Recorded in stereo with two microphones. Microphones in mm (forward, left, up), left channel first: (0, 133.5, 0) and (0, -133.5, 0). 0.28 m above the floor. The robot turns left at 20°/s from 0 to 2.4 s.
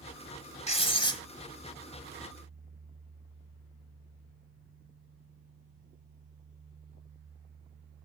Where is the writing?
20° left (ahead or behind), 0.9 m; by 1.2 s 15° left (ahead or behind), 0.9 m.